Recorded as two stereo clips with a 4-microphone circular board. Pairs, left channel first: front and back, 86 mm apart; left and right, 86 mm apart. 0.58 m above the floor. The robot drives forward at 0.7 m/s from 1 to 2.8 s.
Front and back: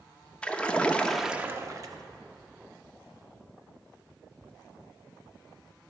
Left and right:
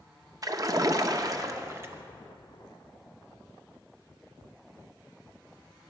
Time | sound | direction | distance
0.4 | a splash | 70° right | 0.5 m